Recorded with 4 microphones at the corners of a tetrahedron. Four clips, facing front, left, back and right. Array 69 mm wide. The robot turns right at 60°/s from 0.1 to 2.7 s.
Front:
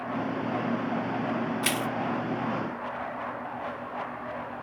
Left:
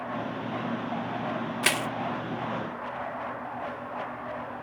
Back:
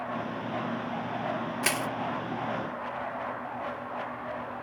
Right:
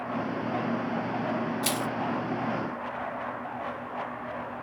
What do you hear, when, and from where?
1.6 s crushing: 105° left, 0.6 m; by 1.9 s 120° left, 0.6 m